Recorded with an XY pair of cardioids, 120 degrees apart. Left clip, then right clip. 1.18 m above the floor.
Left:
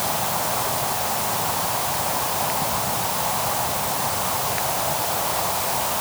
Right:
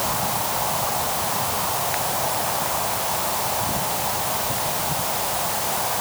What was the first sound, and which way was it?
Only background noise.